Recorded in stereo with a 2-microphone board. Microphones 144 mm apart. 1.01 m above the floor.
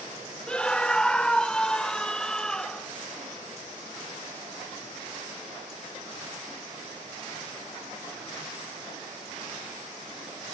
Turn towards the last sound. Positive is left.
turn(degrees=5)  # may be behind; listen again after turning